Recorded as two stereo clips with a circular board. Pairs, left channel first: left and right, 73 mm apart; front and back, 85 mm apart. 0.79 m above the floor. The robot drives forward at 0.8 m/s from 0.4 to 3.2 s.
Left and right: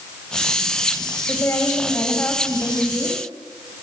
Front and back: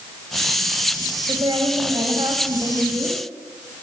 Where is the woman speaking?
145° left, 4 m; by 3.2 s 155° left, 5.5 m.